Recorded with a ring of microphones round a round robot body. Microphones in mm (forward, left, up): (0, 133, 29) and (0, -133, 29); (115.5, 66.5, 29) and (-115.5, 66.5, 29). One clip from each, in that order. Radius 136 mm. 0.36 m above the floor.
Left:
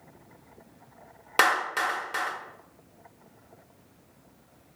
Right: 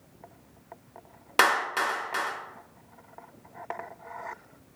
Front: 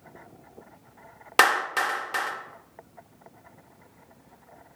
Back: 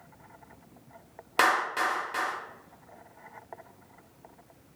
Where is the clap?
5° left, 0.7 m.